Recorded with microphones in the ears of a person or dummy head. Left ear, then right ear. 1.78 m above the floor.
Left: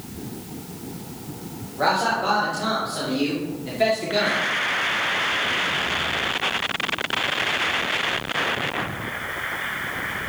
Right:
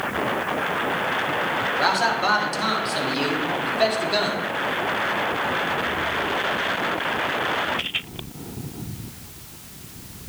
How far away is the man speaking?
About 2.0 m.